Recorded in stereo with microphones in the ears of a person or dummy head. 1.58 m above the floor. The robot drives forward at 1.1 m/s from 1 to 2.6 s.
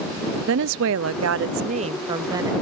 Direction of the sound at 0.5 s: 75° right (ahead or behind).